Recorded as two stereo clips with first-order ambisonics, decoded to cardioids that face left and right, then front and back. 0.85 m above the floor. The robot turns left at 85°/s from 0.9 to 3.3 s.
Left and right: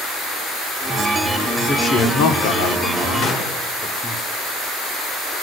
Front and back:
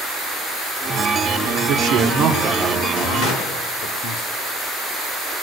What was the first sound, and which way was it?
A man speaking, 170° left.